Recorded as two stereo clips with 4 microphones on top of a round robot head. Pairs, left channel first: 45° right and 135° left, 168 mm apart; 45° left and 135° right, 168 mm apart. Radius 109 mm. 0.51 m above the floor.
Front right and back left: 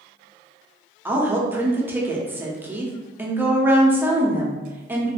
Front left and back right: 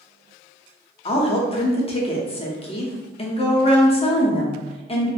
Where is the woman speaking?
65° left, 0.8 m.